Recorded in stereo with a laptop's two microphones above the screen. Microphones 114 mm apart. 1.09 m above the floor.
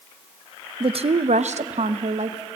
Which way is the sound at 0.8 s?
50° right (ahead or behind).